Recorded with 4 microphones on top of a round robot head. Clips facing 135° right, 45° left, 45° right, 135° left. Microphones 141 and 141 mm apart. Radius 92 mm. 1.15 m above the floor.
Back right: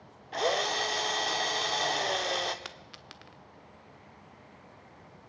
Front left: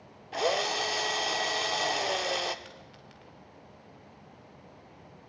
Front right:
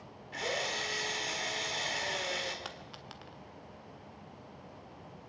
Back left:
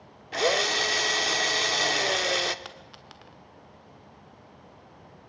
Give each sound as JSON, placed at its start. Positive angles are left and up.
{"t": 0.3, "sound": "a drill", "azimuth_deg": 130, "distance_m": 1.1}
{"t": 2.6, "sound": "a dropped coin", "azimuth_deg": -135, "distance_m": 1.4}